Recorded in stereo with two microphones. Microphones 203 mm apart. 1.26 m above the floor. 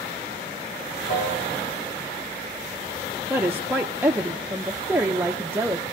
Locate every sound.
1.1 s a piano: 70° left (ahead or behind), 5.5 m
3.3 s a woman speaking: 10° right (ahead or behind), 0.5 m